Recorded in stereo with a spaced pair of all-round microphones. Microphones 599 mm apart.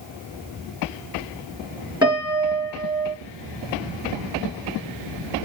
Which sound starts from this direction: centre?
A piano, at 2.0 s.